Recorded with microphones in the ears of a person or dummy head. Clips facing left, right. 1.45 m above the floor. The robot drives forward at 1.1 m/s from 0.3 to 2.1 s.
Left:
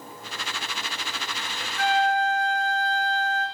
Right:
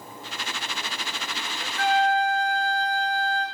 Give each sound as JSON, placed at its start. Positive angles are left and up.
{"t": 1.8, "sound": "a flute", "side_deg": -60, "distance_m": 0.9}